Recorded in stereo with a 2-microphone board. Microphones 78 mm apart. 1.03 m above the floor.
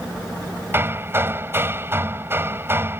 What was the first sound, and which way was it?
Hammering, 30° right (ahead or behind).